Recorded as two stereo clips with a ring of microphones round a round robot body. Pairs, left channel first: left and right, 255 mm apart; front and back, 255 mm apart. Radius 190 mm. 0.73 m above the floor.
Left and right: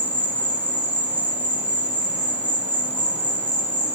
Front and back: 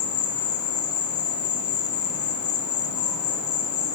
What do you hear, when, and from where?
0.0 s an insect: 5° right, 8 m